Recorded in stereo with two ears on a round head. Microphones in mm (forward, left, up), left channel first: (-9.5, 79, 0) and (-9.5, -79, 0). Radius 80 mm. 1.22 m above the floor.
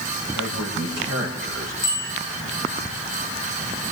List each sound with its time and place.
0.3 s a man speaking: 85° right, 5 m
1.8 s a bicycle bell: 5° right (ahead or behind), 6 m